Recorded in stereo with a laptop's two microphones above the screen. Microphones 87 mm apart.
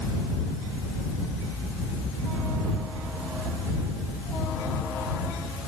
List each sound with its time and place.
Only background noise.